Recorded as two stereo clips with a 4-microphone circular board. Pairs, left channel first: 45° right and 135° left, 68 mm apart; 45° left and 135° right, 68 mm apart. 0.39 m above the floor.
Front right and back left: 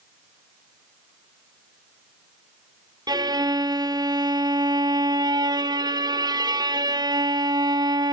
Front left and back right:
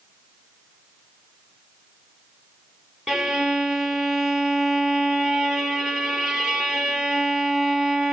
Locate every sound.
3.1 s a violin: 140° left, 1.3 m